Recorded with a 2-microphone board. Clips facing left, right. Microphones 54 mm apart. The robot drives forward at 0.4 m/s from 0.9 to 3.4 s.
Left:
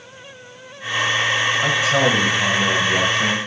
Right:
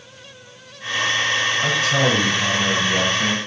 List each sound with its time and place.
1.6 s a man speaking: 15° left (ahead or behind), 1.6 m; by 3.4 s 10° left (ahead or behind), 2 m